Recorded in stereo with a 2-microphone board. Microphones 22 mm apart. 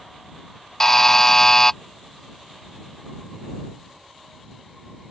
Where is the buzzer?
20° left (ahead or behind).